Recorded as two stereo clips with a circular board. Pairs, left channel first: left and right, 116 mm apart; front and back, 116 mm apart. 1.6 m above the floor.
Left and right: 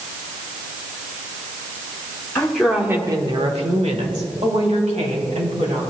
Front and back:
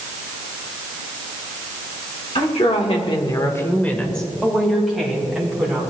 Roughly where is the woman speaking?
Ahead.